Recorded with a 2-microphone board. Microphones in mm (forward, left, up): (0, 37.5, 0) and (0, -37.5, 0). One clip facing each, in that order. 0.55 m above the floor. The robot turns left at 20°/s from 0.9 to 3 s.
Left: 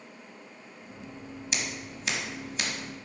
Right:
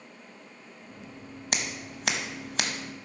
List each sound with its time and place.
1.5 s scissors: 55° right (ahead or behind), 0.9 m; by 2.7 s 80° right, 0.9 m